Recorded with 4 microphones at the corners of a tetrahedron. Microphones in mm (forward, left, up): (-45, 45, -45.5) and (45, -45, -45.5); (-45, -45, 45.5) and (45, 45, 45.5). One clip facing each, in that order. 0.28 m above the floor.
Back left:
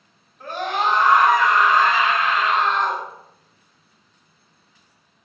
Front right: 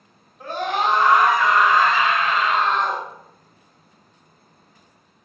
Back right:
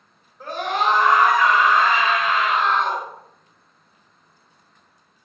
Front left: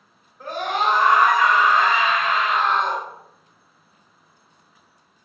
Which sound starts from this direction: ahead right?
A scream, at 0.4 s.